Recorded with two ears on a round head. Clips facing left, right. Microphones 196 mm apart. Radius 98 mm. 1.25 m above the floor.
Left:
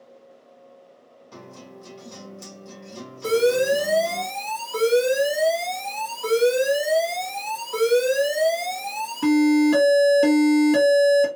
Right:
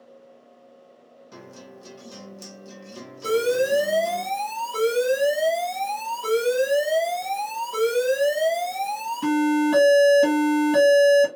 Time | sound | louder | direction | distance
1.3 | a guitar | left 1 dB | 10° right (ahead or behind) | 0.8 m
3.2 | an alarm | left 2 dB | centre (ahead or behind) | 1.5 m